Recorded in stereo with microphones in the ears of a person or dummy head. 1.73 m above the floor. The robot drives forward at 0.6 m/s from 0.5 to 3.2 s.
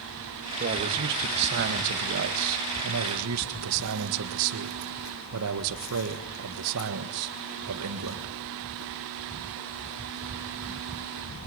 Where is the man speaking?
45° right (ahead or behind), 2 m; by 8.3 s 70° right (ahead or behind), 1.7 m.